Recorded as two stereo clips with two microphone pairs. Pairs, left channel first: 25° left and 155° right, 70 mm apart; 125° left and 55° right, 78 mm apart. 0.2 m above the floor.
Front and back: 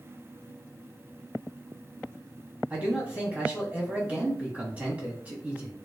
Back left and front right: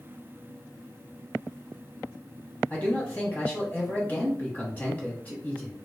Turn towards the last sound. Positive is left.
turn(degrees=165)